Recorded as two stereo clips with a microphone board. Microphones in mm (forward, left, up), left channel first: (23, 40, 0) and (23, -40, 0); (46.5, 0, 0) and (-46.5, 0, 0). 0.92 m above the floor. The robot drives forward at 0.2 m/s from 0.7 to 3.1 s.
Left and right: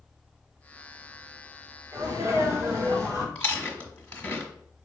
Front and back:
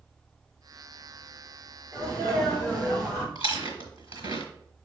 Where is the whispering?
I don't hear whispering.